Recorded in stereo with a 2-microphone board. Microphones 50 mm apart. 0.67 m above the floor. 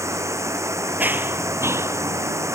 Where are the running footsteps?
35° right (ahead or behind); by 2.5 s 70° right (ahead or behind).